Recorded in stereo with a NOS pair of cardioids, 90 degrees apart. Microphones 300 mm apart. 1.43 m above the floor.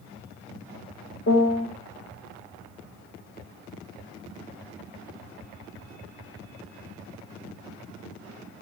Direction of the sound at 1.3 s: 50° left.